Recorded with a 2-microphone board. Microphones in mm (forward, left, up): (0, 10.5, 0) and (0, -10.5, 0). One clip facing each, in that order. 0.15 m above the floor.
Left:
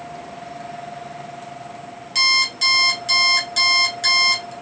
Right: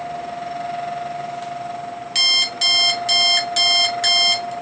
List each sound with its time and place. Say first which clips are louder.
2.1 s an alarm clock: even; 15° right (ahead or behind), 1.3 m